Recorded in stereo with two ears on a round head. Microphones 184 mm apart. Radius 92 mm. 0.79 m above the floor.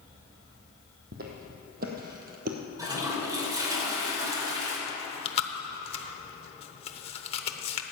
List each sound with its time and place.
1.1 s footsteps: 45° right (ahead or behind), 2 m
2.8 s a toilet flushing: 20° right (ahead or behind), 3 m
4.9 s chewing: 30° left (ahead or behind), 0.9 m